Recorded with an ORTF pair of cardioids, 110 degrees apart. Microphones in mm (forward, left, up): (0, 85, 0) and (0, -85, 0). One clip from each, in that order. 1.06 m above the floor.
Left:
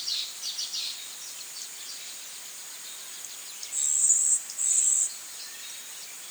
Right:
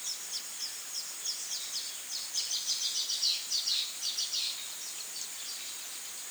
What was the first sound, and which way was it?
Only background noise.